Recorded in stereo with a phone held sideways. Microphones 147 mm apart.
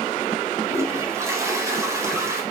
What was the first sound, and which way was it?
A toilet flushing, 20° right (ahead or behind).